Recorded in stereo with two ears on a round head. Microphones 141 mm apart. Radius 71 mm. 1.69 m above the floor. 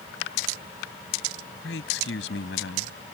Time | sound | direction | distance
1.6 | a man speaking | 85° left | ?